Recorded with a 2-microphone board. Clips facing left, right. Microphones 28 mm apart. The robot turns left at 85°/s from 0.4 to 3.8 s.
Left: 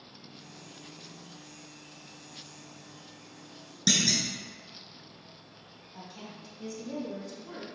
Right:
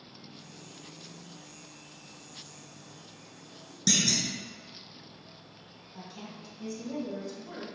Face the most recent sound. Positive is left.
turn(degrees=-10)  # may be behind; listen again after turning